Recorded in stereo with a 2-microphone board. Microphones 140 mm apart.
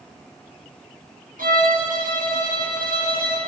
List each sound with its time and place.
1.4 s a violin: 85° right, 10 m